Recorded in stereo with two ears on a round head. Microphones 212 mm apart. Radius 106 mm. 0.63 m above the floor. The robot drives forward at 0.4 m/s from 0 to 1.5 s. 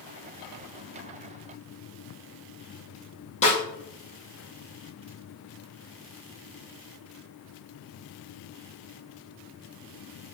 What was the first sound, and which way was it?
A snare drum, 30° left (ahead or behind).